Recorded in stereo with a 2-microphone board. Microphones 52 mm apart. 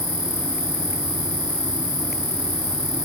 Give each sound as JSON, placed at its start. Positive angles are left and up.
{"t": 0.0, "sound": "an insect", "side_deg": 60, "distance_m": 1.0}